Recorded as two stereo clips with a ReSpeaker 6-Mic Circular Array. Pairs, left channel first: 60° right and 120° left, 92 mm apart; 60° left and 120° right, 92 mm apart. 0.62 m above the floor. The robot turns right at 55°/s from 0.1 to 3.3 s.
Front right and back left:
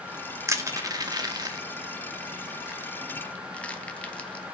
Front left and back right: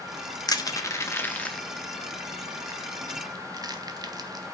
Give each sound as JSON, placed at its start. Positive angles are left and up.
{"t": 0.5, "sound": "crushing", "azimuth_deg": 75, "distance_m": 0.8}